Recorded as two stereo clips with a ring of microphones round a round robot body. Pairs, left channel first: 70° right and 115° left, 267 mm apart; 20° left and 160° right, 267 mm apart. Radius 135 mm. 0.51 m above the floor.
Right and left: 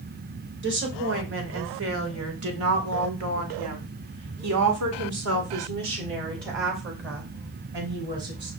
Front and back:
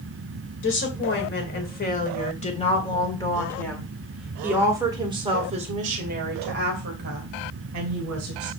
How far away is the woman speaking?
About 2.5 m.